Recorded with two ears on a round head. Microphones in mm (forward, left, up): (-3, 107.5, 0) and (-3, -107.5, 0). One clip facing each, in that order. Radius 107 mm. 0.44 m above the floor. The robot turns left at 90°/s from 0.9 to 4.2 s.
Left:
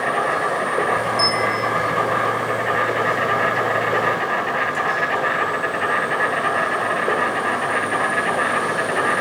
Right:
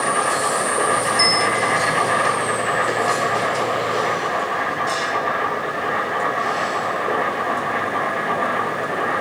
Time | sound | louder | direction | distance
0.0 | an insect | even | 10° right | 3 m
1.2 | a bell | right 1 dB | 145° right | 4 m